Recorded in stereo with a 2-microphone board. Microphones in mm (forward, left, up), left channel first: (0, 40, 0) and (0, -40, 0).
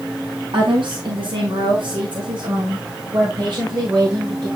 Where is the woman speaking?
70° right (ahead or behind), 4 m; by 4.5 s 55° right (ahead or behind), 6 m.